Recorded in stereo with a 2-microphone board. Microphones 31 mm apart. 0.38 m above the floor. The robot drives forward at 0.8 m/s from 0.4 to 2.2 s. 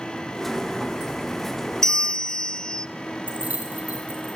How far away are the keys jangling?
About 8.5 m.